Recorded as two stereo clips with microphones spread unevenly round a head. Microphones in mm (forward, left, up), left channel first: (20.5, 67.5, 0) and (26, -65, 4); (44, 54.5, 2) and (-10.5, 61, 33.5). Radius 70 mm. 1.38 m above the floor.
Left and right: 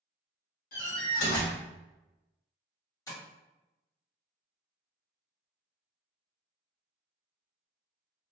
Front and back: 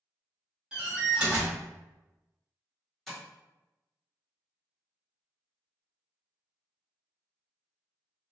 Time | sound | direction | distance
0.7 | a door slam | 115° left | 1.5 m
3.1 | tapping | 135° left | 1.3 m